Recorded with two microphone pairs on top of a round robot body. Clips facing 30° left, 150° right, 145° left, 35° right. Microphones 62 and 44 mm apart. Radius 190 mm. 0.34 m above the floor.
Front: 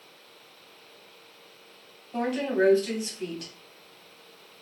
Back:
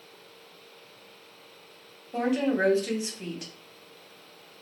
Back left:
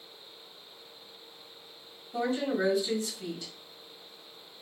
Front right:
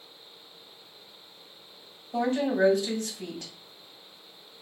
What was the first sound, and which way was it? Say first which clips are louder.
A woman speaking: back 1 dB, front right 4 dB; 75° right.